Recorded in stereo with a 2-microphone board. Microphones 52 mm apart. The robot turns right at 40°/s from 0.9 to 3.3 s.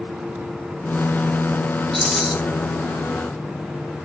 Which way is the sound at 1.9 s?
5° left (ahead or behind).